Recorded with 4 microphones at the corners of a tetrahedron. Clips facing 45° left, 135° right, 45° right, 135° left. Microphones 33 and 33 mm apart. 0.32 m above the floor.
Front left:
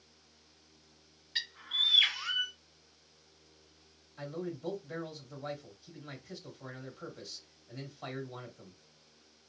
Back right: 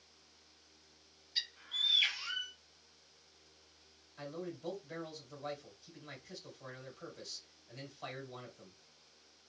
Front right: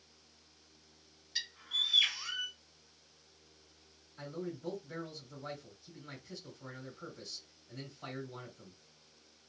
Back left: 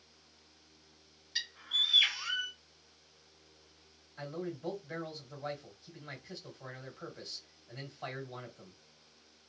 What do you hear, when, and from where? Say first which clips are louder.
1.4 s a bird: front left 5 dB, back left 3 dB; 60° left, 1.3 m
4.2 s a man speaking: front left 4 dB, back left 2 dB; 120° left, 1.8 m